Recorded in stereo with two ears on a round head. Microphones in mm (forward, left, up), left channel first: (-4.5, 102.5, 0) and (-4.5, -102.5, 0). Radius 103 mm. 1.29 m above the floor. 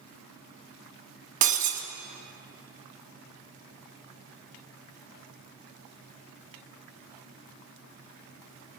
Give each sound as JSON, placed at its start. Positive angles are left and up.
{"t": 1.4, "sound": "breaking glass", "side_deg": -35, "distance_m": 1.0}